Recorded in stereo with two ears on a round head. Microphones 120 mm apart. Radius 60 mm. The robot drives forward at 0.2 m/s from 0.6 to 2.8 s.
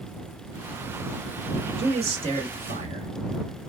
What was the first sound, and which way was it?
A man speaking, 50° right (ahead or behind).